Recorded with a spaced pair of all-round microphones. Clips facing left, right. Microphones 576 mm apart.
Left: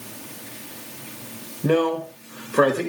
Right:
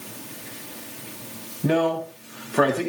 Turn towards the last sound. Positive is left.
turn(degrees=-10)  # may be behind; listen again after turning